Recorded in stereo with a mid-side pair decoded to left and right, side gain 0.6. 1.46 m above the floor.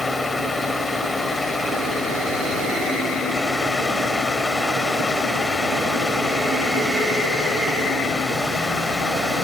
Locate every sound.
0.0 s a fan: 15° left